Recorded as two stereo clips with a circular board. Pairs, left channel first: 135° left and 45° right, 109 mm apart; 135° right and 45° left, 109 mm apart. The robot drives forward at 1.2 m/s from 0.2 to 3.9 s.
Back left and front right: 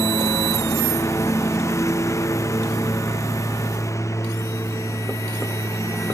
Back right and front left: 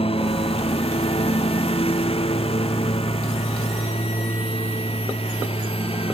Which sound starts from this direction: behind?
A lawn mower, at 0.0 s.